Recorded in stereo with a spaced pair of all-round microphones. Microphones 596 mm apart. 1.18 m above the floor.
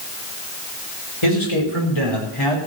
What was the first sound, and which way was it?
A man speaking, 55° left (ahead or behind).